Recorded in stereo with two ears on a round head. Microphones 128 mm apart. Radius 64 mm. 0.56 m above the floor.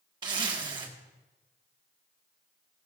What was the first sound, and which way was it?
A zipper, 30° right (ahead or behind).